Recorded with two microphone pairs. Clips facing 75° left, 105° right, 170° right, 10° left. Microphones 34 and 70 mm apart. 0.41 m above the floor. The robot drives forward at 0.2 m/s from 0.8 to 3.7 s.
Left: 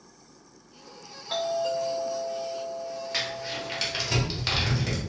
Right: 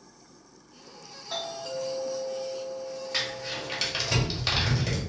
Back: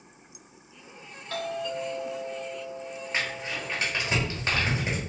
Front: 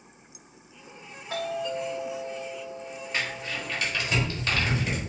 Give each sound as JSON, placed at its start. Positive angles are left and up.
{"t": 1.3, "sound": "a doorbell", "azimuth_deg": 80, "distance_m": 1.9}
{"t": 3.1, "sound": "crumpling", "azimuth_deg": 155, "distance_m": 1.3}